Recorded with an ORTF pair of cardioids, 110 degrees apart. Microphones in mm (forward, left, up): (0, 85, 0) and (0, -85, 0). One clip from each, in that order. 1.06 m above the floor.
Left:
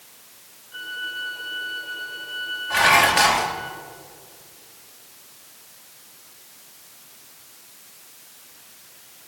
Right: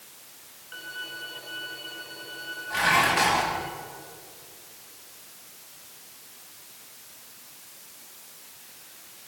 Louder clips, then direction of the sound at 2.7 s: Left 6 dB; 50° left.